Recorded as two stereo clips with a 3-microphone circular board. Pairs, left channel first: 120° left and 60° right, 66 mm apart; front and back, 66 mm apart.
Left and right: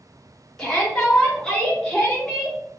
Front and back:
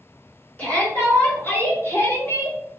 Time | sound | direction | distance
0.6 | a shout | 45° left | 1.3 m